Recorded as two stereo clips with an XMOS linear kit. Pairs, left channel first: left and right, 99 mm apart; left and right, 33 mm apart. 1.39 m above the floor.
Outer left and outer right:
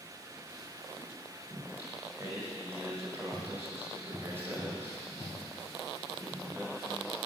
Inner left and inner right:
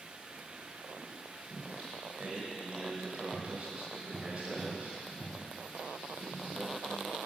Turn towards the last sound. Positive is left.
turn(degrees=-25)  # may be behind; listen again after turning